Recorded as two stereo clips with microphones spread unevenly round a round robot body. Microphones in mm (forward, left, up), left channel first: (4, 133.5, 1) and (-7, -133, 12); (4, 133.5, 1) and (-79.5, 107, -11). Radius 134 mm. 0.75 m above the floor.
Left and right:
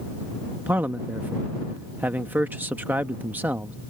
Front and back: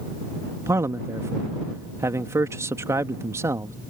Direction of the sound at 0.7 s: 175° right.